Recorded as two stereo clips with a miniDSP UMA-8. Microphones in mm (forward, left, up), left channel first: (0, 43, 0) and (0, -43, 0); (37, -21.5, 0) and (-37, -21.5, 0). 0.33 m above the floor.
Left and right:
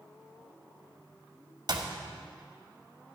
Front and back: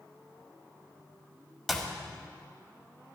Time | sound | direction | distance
1.7 | a clap | 90° right | 1.3 m